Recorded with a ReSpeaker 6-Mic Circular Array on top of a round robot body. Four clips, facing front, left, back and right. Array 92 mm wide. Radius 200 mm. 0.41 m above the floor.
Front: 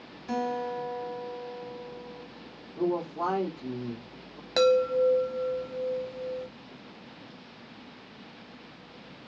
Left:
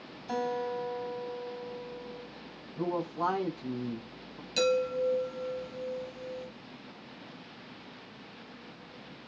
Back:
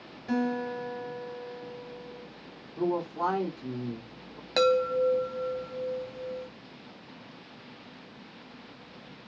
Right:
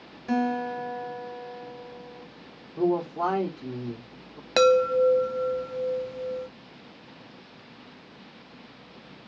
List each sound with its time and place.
0.3 s a guitar: 105° right, 3 m
2.8 s a man speaking: 90° right, 2 m
4.6 s a chime: 90° right, 0.6 m